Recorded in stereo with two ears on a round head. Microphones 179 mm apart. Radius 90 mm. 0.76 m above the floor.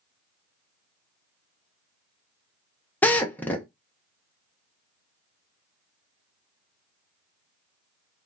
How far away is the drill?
About 0.5 m.